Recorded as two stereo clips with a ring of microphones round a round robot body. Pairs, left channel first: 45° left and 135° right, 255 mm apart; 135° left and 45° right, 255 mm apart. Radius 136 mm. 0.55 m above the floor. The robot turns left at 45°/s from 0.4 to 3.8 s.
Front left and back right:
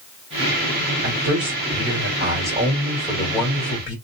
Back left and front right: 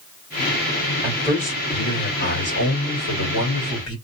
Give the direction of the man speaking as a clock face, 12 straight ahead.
5 o'clock.